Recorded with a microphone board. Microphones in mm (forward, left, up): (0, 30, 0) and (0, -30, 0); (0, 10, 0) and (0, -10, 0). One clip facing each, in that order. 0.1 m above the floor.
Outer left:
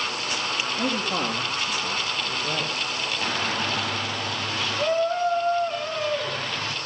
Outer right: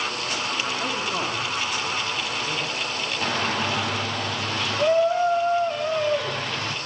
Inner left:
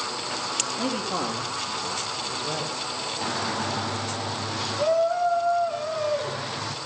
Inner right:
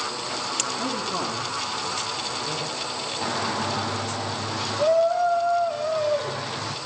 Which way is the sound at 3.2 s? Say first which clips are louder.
Outer right 3 dB, inner right 2 dB; centre (ahead or behind).